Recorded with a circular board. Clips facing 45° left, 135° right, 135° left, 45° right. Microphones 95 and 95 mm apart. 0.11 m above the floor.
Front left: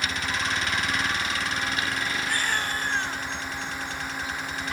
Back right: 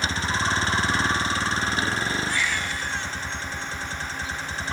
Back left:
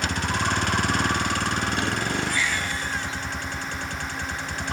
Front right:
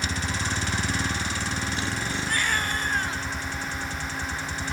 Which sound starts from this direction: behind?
A vehicle, at 0.0 s.